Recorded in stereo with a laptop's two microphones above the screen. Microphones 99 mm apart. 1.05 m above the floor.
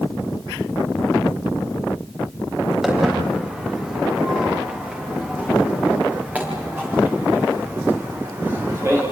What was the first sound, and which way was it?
Footsteps, 5° right (ahead or behind).